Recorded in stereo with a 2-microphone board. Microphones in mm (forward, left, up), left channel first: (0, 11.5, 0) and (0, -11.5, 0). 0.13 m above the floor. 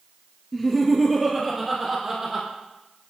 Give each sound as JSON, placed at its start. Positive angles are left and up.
{"t": 0.5, "sound": "laughter", "side_deg": 5, "distance_m": 2.0}